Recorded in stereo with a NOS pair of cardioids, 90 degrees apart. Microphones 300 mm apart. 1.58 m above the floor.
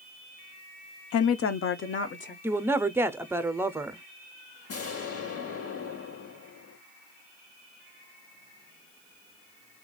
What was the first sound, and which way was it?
A woman speaking, 55° left.